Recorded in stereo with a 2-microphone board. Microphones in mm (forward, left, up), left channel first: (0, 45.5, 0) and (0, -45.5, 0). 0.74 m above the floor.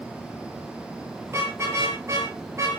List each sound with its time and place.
1.3 s a car horn: 30° right (ahead or behind), 8 m; by 2.8 s 35° right (ahead or behind), 7 m